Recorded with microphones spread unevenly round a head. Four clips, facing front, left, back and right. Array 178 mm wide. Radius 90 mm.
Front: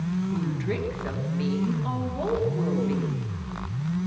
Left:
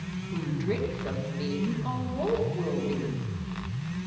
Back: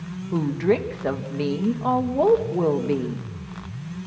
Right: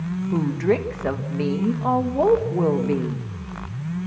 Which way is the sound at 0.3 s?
140° right.